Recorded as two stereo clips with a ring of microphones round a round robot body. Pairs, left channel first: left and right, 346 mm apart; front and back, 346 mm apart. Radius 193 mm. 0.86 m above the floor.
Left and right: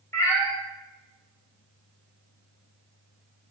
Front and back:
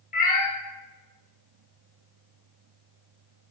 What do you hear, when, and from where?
0.1 s a cat meowing: 20° left, 0.5 m